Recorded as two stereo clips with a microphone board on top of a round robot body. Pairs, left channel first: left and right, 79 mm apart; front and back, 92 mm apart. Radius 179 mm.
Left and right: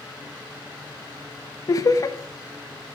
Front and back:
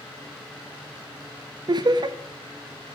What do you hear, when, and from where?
1.7 s laughter: 135° left, 0.5 m